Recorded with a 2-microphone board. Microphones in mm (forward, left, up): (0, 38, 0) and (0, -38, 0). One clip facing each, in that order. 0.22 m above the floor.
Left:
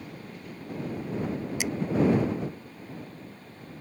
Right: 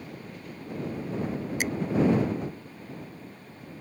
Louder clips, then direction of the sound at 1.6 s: Right 2 dB; 45° right (ahead or behind).